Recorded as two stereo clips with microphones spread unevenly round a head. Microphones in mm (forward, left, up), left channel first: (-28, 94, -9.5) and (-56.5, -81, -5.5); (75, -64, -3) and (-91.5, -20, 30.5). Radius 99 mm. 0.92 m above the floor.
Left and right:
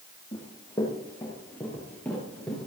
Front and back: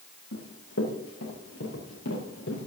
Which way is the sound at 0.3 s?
10° left.